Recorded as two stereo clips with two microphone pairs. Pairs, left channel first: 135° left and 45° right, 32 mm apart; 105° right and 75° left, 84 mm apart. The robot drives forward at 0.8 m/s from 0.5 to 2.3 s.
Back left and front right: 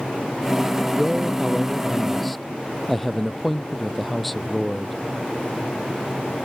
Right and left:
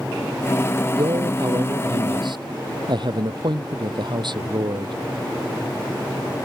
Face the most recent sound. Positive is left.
turn(degrees=50)